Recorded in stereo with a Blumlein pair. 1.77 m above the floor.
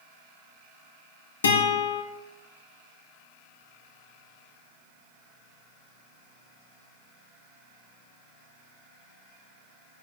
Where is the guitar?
70° left, 1.2 m.